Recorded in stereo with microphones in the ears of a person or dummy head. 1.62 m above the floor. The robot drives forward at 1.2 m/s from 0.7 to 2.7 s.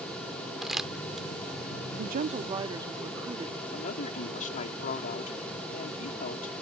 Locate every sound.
0.6 s crumpling: 5° right (ahead or behind)
2.0 s a woman speaking: 50° right (ahead or behind); by 3.6 s 20° right (ahead or behind)
3.7 s a woman speaking: 45° left (ahead or behind)